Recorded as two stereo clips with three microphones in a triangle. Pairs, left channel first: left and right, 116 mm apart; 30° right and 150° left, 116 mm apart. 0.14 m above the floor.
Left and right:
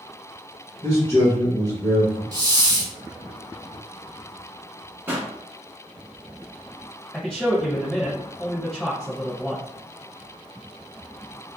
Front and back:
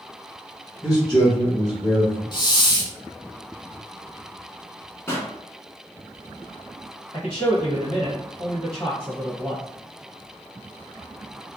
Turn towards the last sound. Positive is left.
turn(degrees=5)